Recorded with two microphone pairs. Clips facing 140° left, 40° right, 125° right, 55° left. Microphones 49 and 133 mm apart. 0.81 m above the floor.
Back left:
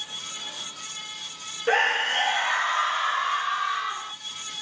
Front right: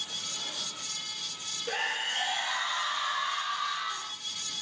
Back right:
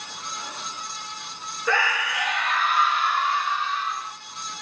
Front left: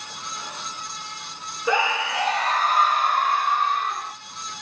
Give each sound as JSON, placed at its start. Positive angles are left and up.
{"t": 1.7, "sound": "a scream", "azimuth_deg": 125, "distance_m": 0.9}